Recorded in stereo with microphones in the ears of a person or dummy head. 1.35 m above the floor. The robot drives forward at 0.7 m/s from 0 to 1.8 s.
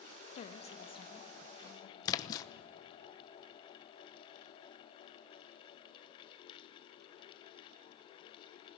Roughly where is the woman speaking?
Left.